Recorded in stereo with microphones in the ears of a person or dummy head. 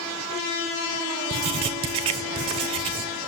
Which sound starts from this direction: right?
Writing, at 1.3 s.